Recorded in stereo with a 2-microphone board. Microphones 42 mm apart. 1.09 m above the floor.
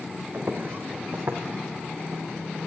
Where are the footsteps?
55° right (ahead or behind), 3.5 m; by 2.4 s 70° right (ahead or behind), 3 m.